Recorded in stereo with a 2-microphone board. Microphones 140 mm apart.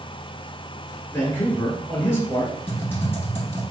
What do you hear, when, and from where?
1.1 s a man speaking: 20° left (ahead or behind), 1.5 m
2.7 s typing on a keyboard: 15° left (ahead or behind), 1.0 m